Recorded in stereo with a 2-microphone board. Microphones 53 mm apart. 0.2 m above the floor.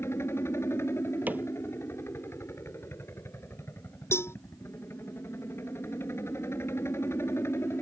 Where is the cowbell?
55° left (ahead or behind).